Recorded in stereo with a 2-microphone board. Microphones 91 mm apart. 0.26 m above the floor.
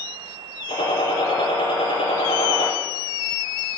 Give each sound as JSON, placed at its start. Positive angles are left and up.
{"t": 0.7, "sound": "a gunshot", "side_deg": 80, "distance_m": 5.0}